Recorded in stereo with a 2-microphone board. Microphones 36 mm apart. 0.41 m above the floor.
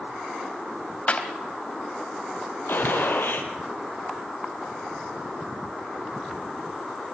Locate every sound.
1.1 s a clap: 40° left (ahead or behind), 1.9 m
2.7 s a gunshot: 75° left (ahead or behind), 3 m